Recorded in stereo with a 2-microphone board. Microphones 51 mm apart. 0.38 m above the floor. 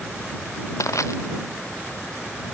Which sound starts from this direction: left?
Crushing, at 0.8 s.